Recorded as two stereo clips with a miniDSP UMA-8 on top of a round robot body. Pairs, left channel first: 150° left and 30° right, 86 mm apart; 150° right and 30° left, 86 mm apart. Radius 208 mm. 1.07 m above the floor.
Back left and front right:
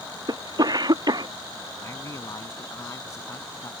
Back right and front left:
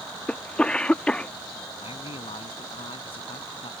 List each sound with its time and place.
0.3 s a cough: 70° right
1.8 s a man speaking: 155° right